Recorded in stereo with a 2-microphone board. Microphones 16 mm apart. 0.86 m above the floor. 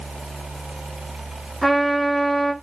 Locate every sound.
1.6 s a trumpet: 30° left (ahead or behind), 1.6 m